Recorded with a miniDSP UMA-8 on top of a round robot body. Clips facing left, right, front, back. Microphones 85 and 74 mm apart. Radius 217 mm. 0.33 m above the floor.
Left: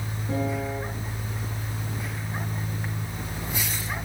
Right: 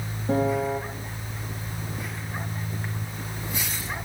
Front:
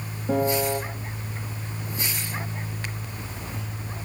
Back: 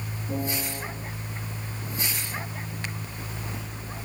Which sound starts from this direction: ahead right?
A piano, at 0.3 s.